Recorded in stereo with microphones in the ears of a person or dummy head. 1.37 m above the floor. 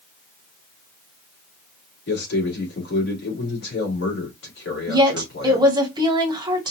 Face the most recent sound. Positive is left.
turn(degrees=-20)  # may be behind; listen again after turning